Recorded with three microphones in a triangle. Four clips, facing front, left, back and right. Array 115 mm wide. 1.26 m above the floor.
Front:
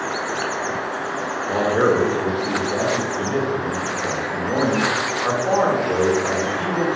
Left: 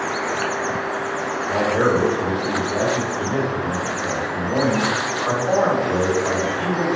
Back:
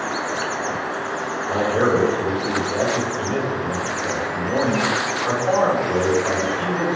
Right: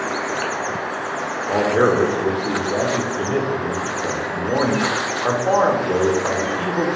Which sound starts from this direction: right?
A man speaking, at 1.5 s.